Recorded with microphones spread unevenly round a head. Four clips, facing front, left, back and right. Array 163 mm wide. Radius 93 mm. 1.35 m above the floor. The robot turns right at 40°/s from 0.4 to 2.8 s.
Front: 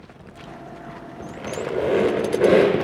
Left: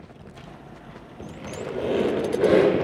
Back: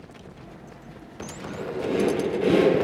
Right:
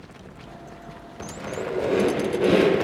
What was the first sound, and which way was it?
A squeak, 35° right.